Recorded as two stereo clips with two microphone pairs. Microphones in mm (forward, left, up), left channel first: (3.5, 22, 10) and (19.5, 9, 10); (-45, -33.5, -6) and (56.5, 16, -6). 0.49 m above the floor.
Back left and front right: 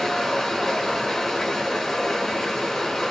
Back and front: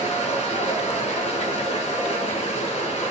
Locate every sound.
0.0 s running water: 150° right, 2 m